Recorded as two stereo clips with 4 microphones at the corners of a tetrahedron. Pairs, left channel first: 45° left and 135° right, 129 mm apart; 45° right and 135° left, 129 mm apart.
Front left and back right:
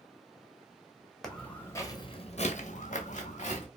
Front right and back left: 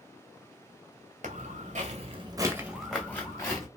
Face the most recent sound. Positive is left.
turn(degrees=20)